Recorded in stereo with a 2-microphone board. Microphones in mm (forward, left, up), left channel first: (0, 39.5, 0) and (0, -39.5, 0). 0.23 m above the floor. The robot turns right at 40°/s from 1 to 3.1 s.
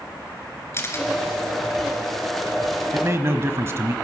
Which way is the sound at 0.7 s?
35° left (ahead or behind).